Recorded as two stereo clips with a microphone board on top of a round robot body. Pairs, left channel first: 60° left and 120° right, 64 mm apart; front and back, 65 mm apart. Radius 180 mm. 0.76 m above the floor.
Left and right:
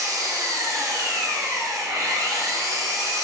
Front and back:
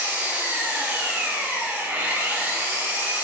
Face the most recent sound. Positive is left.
turn(degrees=-120)